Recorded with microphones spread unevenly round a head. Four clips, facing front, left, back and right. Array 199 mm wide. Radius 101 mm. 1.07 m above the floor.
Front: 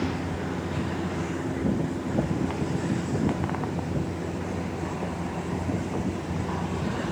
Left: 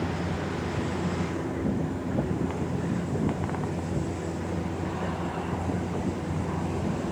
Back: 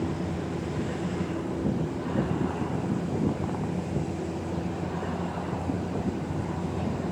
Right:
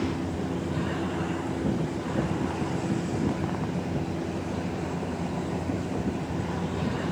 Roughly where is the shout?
No shout in this recording.